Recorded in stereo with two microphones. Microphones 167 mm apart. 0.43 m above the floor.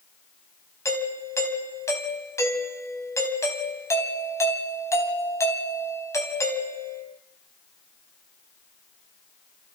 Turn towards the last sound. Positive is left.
turn(degrees=15)  # may be behind; listen again after turning